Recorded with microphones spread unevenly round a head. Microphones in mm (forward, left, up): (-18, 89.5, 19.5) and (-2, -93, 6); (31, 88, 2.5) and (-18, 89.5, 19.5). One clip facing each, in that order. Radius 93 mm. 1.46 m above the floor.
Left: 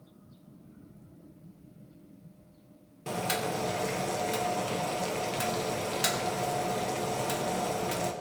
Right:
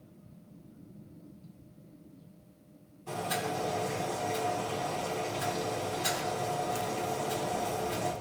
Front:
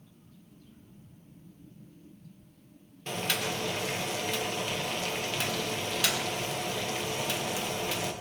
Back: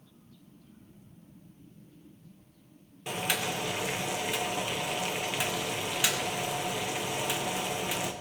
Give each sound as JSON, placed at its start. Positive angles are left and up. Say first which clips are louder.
{"t": 3.1, "sound": "boiling", "louder": "left 2 dB, even", "azimuth_deg": 95, "distance_m": 1.7}